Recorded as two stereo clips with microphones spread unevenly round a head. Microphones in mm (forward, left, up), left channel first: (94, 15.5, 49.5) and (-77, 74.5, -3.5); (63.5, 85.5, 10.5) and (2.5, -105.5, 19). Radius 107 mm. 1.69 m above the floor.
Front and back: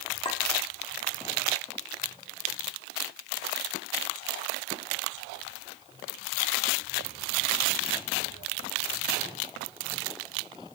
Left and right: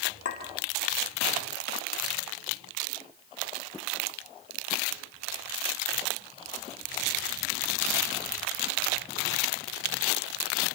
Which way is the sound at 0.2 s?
40° left.